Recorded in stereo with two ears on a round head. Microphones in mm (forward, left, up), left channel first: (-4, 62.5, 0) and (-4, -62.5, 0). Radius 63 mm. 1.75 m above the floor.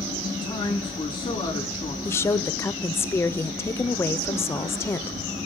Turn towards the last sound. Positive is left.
turn(degrees=20)  # may be behind; listen again after turning